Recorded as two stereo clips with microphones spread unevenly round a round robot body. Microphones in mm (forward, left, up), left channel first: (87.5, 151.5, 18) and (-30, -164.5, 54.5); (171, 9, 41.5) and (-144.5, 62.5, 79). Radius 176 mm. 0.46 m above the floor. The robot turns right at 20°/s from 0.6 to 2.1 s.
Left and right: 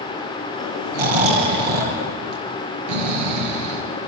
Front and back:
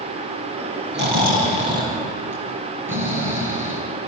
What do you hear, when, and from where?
0.9 s snoring: 130° right, 5 m; by 3.8 s 105° right, 5 m